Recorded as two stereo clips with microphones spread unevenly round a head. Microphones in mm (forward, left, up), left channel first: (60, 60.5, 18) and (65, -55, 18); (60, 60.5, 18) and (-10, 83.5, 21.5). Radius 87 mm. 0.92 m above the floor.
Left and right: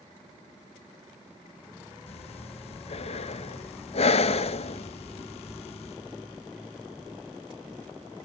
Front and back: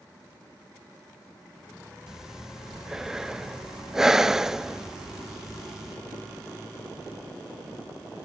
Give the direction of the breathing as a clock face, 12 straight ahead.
9 o'clock.